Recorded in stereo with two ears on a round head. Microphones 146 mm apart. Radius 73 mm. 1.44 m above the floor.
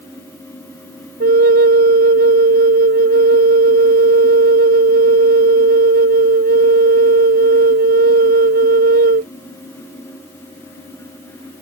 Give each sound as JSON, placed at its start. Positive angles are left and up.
{"t": 1.2, "sound": "a flute", "side_deg": -60}